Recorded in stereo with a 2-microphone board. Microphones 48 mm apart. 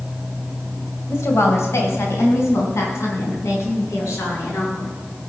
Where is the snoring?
I don't hear snoring.